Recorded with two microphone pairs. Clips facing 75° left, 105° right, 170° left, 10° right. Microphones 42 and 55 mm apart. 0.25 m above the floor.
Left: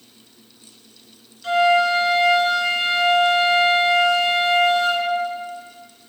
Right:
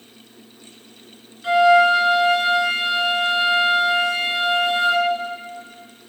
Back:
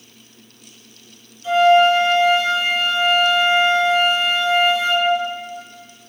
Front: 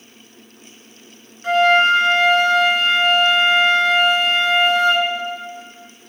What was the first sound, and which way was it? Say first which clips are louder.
A flute: right 3 dB, back 1 dB; 35° right.